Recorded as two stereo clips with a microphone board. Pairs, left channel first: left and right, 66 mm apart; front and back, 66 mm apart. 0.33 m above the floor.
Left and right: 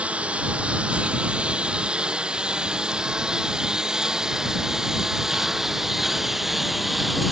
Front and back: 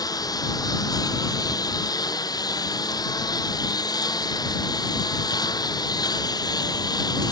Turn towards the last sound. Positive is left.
turn(degrees=0)